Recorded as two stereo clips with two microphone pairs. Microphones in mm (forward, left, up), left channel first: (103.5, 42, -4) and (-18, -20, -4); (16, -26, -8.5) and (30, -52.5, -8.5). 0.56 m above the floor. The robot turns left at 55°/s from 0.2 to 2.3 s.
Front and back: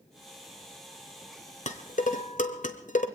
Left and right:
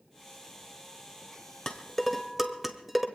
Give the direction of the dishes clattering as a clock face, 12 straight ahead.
10 o'clock.